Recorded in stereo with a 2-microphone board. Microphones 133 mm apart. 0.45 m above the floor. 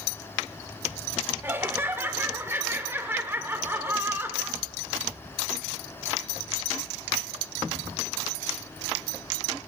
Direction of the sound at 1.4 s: 15° right (ahead or behind).